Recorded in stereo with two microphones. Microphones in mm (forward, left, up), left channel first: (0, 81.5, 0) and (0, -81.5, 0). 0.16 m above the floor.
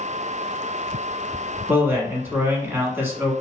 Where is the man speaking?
15° right (ahead or behind), 1.1 m.